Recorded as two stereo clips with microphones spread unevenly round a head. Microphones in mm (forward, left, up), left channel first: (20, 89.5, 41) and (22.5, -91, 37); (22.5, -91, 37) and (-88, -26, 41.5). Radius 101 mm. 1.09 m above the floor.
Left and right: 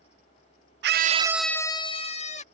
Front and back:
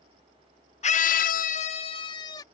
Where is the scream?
65° right; by 2.4 s 40° left.